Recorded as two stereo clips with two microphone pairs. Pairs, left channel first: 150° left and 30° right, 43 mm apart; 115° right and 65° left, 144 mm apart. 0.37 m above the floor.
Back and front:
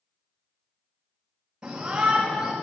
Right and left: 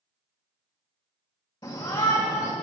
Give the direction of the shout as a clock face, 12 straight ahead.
3 o'clock.